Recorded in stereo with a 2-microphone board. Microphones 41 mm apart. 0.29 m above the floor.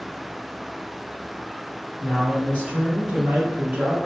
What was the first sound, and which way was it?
A man speaking, 25° right (ahead or behind).